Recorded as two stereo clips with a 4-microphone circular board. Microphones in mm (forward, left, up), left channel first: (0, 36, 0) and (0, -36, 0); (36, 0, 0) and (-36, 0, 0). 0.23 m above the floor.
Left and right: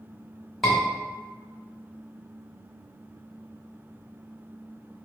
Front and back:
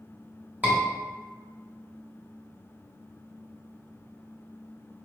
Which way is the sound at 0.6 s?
175° left.